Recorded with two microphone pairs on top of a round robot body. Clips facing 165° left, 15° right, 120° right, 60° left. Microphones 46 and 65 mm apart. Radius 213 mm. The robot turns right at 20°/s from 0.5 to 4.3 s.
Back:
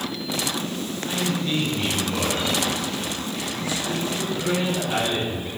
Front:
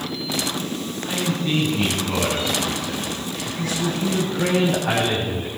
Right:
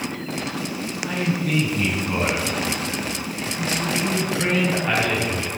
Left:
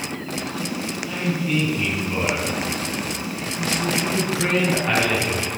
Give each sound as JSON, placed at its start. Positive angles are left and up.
{"t": 1.0, "sound": "a man speaking", "azimuth_deg": -90, "distance_m": 3.5}